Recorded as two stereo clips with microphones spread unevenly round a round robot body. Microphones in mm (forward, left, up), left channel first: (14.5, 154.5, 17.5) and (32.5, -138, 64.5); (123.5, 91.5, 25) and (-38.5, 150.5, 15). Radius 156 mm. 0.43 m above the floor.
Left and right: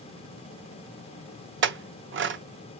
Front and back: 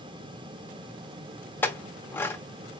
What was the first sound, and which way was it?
A clink, 95° right.